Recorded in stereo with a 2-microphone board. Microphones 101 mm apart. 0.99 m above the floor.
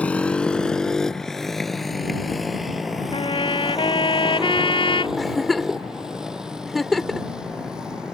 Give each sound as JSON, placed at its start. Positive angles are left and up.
{"t": 0.0, "sound": "a motorcycle", "side_deg": 15}
{"t": 3.1, "sound": "a trumpet", "side_deg": 55}
{"t": 5.2, "sound": "a giggle", "side_deg": 0}